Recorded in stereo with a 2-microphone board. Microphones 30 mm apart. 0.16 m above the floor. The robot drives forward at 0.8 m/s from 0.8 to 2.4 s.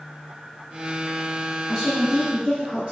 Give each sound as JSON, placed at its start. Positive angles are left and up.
{"t": 1.7, "sound": "a woman speaking", "side_deg": -15, "distance_m": 1.1}